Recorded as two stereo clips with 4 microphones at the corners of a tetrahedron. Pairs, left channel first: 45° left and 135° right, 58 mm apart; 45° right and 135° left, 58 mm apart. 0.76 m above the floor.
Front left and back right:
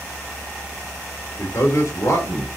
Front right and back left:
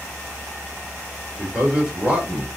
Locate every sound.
1.4 s a man speaking: 65° left, 2.5 m